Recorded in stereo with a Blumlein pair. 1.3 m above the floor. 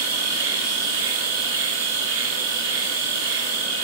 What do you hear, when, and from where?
0.0 s an insect: 55° right, 3 m